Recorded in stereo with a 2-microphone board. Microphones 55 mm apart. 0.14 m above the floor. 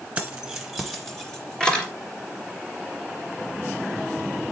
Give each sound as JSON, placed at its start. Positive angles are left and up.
{"t": 0.2, "sound": "keys jangling", "side_deg": -20, "distance_m": 1.4}